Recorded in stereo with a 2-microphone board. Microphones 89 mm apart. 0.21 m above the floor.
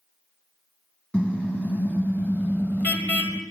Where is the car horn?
20° left (ahead or behind), 4.5 m; by 3.4 s 25° left (ahead or behind), 3 m.